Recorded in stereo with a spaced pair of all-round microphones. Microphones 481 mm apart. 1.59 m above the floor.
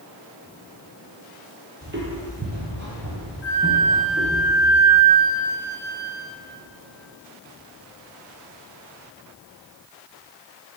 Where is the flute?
35° right (ahead or behind), 2 m.